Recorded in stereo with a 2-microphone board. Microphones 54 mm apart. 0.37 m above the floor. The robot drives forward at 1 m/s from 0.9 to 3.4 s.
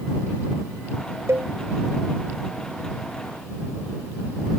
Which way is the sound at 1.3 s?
50° right (ahead or behind).